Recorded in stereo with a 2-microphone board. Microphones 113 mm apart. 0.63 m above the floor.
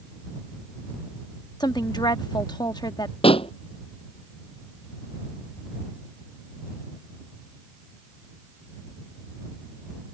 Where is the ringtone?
I don't hear a ringtone.